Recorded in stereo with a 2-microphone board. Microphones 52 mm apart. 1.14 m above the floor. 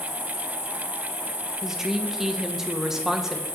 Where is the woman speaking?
10° right (ahead or behind), 0.7 m.